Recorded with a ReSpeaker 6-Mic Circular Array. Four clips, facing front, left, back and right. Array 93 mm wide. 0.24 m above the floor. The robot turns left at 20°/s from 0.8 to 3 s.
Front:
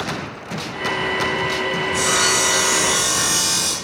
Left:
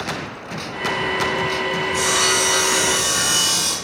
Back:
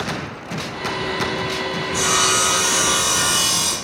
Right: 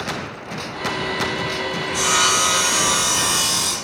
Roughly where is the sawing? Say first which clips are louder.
Right 3 dB, back 2 dB; behind right.